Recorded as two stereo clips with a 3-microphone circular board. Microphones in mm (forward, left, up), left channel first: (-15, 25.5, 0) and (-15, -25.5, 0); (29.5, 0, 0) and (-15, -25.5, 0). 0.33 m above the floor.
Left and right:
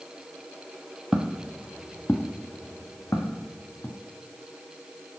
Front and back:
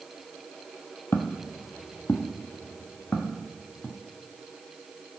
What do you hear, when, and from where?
1.1 s footsteps: 10° right, 0.5 m; by 4.0 s 90° left, 1.4 m